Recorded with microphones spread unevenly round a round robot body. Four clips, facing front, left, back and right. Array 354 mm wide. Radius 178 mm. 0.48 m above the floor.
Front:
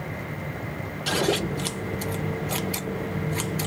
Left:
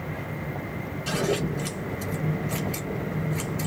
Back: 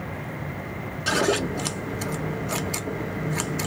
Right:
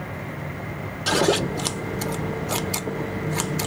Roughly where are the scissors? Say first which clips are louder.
Right 6 dB, back 2 dB; right.